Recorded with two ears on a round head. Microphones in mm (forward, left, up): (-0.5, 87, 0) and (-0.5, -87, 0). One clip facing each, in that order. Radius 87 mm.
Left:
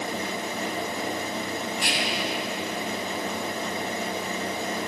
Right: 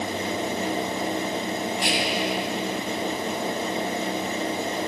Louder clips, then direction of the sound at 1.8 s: Right 4 dB; 45° left (ahead or behind).